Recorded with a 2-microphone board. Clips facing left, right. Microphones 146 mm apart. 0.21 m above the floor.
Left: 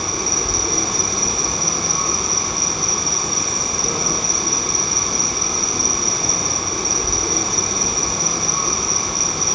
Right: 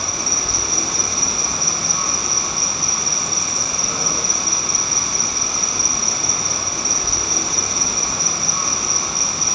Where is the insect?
55° left (ahead or behind), 0.9 m.